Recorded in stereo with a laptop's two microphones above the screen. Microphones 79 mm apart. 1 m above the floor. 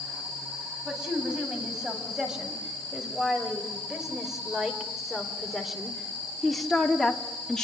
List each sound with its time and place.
0.8 s a woman speaking: 10° right (ahead or behind), 8.5 m; by 7.7 s 10° left (ahead or behind), 2 m